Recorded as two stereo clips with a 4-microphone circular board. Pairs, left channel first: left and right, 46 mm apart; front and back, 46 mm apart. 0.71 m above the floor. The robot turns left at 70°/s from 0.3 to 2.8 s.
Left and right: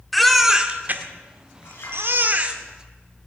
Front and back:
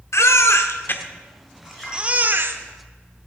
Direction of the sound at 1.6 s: 95° left.